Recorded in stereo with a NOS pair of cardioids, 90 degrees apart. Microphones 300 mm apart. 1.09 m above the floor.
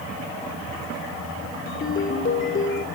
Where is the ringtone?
40° left, 2 m.